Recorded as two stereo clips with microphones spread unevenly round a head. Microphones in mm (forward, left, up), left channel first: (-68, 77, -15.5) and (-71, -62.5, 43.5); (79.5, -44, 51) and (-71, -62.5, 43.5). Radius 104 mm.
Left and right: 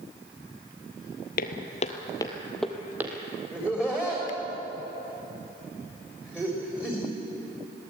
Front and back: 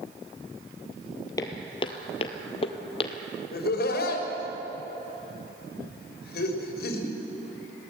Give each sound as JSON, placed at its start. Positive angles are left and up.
{"t": 1.4, "sound": "footsteps", "azimuth_deg": 65, "distance_m": 1.2}
{"t": 3.5, "sound": "laughter", "azimuth_deg": -5, "distance_m": 4.0}